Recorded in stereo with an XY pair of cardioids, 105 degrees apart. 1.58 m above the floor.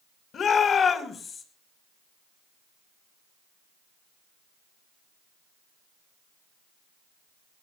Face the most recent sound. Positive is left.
turn(degrees=40)